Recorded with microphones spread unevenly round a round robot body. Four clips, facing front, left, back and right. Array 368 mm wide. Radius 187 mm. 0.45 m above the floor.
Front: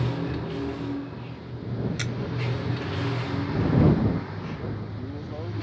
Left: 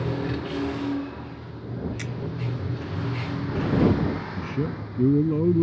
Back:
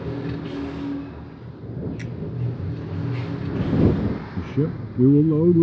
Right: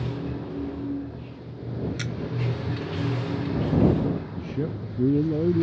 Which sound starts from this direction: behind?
A man speaking, at 4.4 s.